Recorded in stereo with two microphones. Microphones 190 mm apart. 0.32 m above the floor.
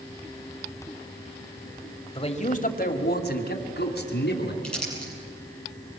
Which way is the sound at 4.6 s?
5° left (ahead or behind).